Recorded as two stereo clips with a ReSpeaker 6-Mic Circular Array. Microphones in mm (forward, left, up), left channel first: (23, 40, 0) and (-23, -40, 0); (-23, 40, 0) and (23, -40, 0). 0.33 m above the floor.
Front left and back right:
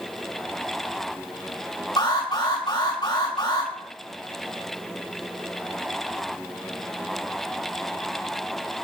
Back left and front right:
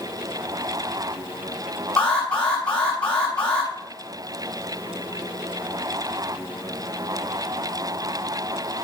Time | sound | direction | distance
2.0 | an alarm | 45° left | 3 m